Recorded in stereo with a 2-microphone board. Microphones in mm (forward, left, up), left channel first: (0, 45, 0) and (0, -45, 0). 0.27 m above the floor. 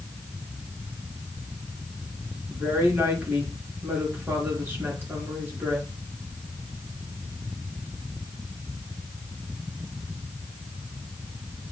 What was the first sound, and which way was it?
A woman speaking, 25° right (ahead or behind).